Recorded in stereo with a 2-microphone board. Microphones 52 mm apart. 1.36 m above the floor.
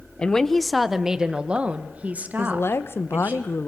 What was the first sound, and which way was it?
A woman speaking, 20° left (ahead or behind).